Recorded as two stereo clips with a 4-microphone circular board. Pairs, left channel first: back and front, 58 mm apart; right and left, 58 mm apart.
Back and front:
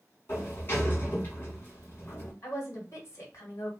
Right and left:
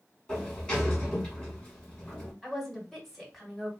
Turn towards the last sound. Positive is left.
turn(degrees=180)